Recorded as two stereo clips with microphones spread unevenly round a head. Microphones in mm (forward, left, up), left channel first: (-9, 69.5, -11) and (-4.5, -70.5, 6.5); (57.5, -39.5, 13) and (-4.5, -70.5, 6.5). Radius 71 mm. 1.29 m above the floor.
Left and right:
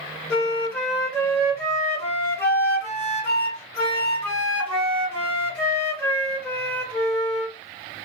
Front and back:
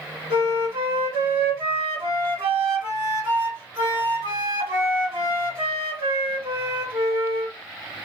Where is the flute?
170° left, 1.7 m.